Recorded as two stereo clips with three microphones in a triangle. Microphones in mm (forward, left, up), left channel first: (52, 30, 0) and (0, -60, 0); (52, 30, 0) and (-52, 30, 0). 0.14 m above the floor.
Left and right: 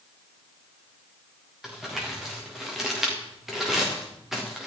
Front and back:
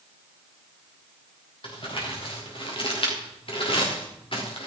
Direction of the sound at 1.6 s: 35° right.